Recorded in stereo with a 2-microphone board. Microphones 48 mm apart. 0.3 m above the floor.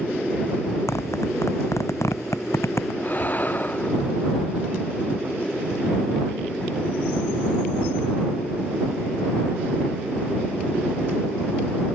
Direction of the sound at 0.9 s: 80° left.